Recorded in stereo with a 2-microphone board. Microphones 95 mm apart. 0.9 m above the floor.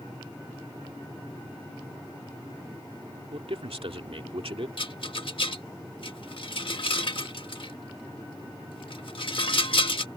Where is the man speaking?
80° right.